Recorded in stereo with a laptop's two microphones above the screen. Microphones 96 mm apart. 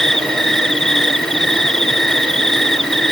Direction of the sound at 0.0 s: 5° left (ahead or behind).